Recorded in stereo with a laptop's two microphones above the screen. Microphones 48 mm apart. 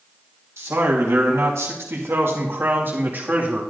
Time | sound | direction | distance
0.6 | a man speaking | 75° right (ahead or behind) | 1.9 m